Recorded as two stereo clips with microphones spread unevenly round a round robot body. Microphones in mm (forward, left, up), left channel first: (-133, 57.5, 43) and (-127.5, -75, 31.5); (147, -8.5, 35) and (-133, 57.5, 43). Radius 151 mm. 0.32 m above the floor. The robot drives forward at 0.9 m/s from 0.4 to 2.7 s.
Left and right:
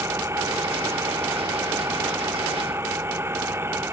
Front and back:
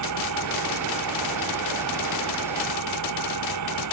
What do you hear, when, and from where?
0.0 s an engine running: 160° right